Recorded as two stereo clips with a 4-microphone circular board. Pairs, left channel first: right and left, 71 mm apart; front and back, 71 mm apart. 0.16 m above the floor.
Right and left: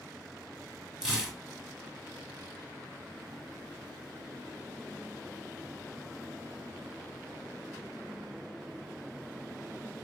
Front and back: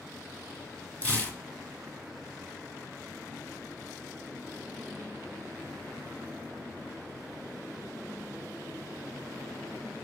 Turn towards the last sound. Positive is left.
turn(degrees=20)